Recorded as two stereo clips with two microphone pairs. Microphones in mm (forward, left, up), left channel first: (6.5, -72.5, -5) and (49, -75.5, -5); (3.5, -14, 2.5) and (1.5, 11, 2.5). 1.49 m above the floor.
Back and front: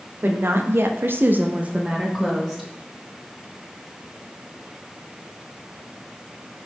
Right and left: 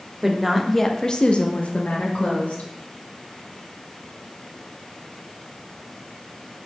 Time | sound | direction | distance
0.2 | a woman speaking | 20° left | 0.6 m